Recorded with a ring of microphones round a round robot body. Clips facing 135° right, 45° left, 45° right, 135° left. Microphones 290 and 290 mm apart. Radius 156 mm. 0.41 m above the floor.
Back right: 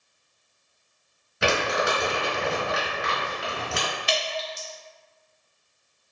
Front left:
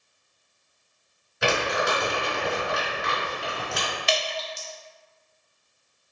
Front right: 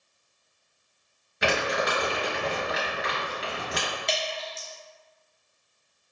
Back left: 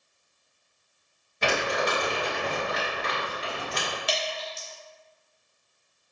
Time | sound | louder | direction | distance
1.4 | crumpling | back right 1 dB, even | 120° right | 1.6 m
4.1 | dripping | front left 3 dB, even | 50° left | 0.6 m